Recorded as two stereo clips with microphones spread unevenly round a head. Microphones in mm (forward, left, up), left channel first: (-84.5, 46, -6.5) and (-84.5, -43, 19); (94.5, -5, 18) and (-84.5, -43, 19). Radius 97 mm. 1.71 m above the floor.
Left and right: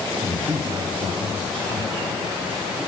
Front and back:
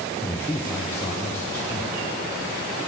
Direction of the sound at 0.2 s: 65° right.